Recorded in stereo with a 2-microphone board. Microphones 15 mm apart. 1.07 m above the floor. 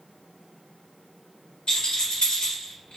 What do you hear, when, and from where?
1.7 s a rattle: 75° left (ahead or behind), 2 m